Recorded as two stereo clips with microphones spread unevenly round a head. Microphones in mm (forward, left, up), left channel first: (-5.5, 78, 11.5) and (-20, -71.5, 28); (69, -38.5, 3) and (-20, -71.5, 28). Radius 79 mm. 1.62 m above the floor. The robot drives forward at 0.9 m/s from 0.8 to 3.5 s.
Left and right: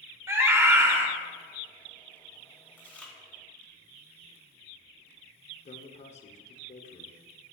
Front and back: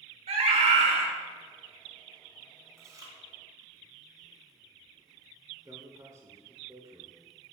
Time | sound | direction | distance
0.3 | a scream | 170° right | 1.5 m
2.8 | chewing | 165° left | 1.0 m
5.7 | a man speaking | 130° left | 0.8 m